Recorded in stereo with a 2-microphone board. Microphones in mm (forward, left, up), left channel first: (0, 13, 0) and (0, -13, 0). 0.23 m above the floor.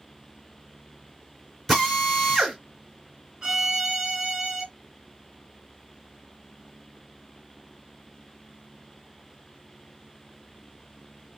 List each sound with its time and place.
1.7 s a drill: centre (ahead or behind), 2.5 m
3.4 s a violin: 20° right (ahead or behind), 2.5 m